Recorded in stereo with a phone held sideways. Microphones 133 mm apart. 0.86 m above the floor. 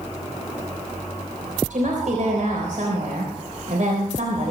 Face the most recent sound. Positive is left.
turn(degrees=-70)  # may be behind; listen again after turning